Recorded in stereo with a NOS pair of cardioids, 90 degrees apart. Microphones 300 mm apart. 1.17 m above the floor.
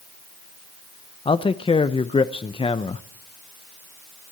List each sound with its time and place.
1.2 s a man speaking: 15° left, 0.6 m